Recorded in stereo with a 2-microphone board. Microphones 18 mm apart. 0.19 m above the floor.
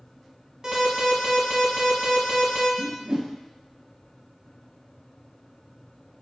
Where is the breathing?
I don't hear breathing.